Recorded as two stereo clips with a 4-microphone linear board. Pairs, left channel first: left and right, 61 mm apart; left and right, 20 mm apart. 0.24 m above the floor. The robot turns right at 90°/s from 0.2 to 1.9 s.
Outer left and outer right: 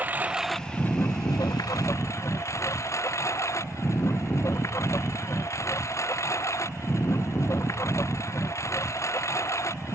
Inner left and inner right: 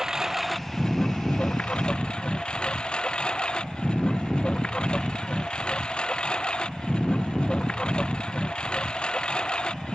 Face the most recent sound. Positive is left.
turn(degrees=125)